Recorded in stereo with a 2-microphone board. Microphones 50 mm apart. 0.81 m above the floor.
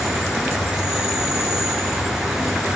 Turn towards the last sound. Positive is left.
turn(degrees=-10)  # may be behind; listen again after turning